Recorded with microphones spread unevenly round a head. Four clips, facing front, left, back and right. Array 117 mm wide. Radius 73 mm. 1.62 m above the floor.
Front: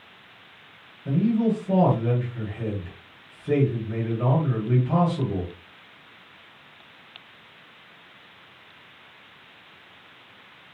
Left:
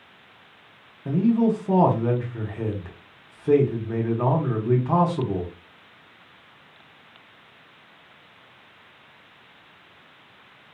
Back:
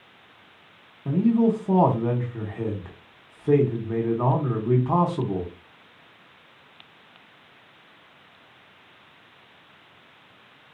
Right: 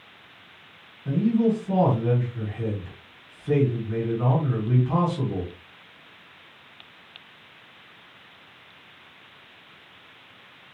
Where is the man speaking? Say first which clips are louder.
Left 1 dB, back 2 dB; 145° left, 1.6 m.